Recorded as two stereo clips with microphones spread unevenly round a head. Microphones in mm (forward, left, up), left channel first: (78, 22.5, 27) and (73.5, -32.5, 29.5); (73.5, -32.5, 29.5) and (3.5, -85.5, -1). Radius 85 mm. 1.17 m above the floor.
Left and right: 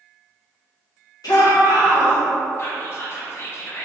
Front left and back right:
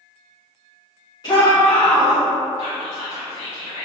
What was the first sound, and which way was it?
A shout, 105° left.